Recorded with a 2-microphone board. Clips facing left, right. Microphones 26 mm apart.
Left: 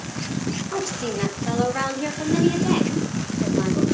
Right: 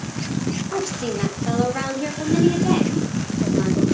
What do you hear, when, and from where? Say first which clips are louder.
0.7 s a woman speaking: right 2 dB; 5° right (ahead or behind), 4 m; by 3.8 s 10° left (ahead or behind), 7 m